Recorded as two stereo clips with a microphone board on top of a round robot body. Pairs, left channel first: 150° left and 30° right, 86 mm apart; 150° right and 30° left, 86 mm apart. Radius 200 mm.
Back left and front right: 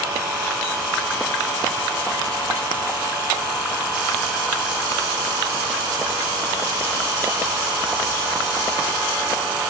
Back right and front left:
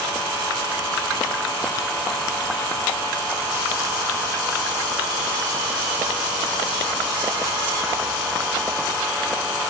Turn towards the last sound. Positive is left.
No sound to turn to.